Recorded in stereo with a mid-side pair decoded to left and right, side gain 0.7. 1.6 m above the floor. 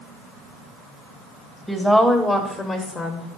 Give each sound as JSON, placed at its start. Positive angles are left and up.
{"t": 1.7, "sound": "a woman speaking", "azimuth_deg": 0, "distance_m": 1.5}